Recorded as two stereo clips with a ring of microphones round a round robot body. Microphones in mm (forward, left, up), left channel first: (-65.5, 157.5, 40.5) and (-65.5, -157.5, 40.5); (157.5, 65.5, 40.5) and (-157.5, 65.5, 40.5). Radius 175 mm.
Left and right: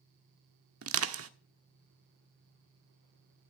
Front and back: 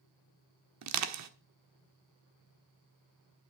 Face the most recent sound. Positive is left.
turn(degrees=-135)